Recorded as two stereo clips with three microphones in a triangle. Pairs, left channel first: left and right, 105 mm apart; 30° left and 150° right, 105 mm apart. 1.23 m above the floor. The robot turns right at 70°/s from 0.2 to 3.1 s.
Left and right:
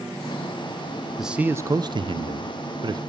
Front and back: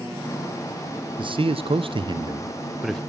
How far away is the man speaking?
About 0.6 m.